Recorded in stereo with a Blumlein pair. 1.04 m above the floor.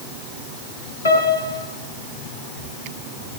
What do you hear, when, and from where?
1.1 s a piano: 70° left, 6.5 m